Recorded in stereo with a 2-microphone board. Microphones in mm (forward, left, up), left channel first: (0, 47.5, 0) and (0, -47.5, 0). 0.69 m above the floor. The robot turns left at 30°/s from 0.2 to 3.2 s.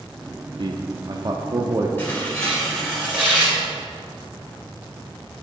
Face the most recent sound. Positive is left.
turn(degrees=-15)